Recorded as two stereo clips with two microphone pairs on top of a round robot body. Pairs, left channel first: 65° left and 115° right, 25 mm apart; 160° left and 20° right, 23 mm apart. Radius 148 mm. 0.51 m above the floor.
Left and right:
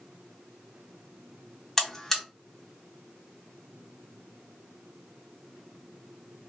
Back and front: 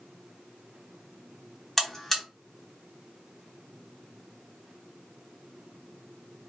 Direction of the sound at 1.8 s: 110° left.